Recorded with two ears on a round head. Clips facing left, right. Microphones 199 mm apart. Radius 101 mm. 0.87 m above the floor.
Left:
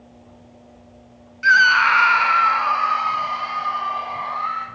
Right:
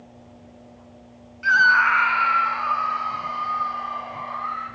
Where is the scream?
25° left (ahead or behind), 0.5 m; by 4.7 s 80° left, 2.5 m.